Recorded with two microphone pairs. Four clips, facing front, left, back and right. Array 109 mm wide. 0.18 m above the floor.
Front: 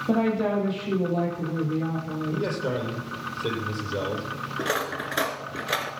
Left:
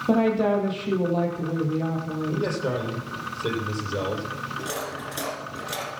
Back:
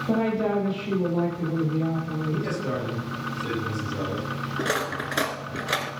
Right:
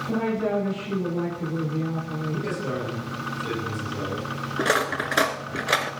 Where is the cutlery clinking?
85° right, 1.2 m.